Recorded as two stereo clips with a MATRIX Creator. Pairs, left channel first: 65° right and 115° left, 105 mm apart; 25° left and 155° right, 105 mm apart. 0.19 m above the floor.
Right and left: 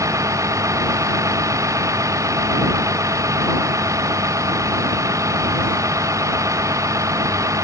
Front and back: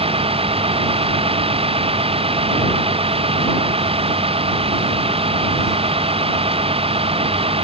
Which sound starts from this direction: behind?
A vehicle, at 0.0 s.